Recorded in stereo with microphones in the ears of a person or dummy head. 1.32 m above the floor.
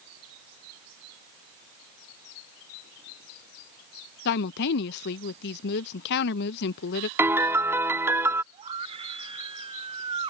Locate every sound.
4.2 s a woman speaking: 60° left (ahead or behind)
7.2 s a piano: 10° right (ahead or behind)
8.5 s a scream: 30° right (ahead or behind)